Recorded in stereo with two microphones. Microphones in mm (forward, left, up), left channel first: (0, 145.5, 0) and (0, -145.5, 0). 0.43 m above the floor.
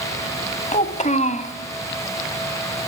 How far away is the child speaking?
About 1.5 m.